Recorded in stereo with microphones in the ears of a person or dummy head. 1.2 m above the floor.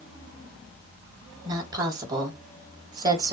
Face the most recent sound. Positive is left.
turn(degrees=-20)  # may be behind; listen again after turning